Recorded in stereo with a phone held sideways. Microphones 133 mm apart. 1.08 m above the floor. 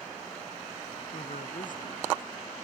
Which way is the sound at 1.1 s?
80° left.